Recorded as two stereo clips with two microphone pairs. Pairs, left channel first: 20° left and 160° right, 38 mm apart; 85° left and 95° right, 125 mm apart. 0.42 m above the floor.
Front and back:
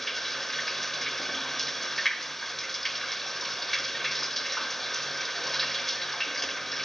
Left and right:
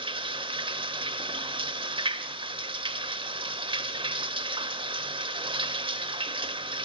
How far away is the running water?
About 1.2 m.